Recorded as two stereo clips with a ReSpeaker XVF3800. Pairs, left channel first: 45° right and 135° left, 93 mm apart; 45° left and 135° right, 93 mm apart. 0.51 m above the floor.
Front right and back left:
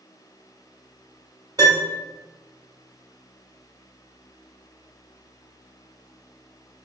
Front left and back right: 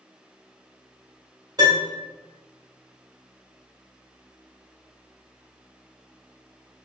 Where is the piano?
Straight behind, 1.7 m.